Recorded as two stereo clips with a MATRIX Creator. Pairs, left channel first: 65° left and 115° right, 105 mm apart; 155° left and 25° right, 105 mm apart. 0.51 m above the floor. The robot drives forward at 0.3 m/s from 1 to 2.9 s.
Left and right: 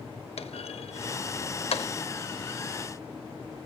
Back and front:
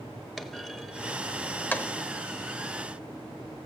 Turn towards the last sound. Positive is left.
turn(degrees=110)